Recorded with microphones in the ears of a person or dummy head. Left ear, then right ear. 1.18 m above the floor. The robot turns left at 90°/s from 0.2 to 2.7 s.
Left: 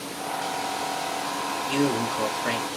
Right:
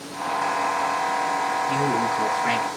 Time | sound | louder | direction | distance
1.7 | a man speaking | right 3 dB | 50° left | 3 m